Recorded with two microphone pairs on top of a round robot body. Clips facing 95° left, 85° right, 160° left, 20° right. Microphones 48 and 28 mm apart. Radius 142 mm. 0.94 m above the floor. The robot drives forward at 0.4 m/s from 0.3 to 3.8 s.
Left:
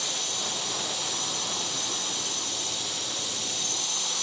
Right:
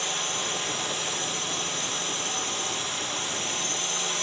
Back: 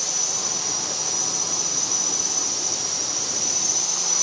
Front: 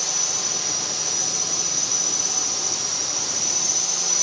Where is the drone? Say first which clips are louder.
Right 3 dB, front 1 dB; 90° right; by 4.2 s 100° right.